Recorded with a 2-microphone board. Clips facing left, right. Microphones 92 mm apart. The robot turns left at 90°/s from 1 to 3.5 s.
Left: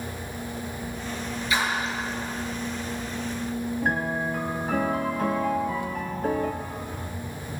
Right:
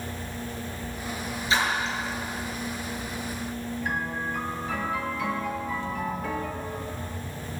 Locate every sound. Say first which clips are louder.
1.5 s a splash: right 1 dB; 30° right (ahead or behind), 3.5 m; by 2.0 s 10° left (ahead or behind), 3.5 m
3.8 s a piano: left 4 dB; 45° left (ahead or behind), 1.2 m